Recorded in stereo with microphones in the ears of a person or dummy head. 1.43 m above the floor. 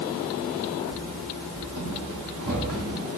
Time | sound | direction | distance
0.9 | running footsteps | 60° right (ahead or behind) | 3 m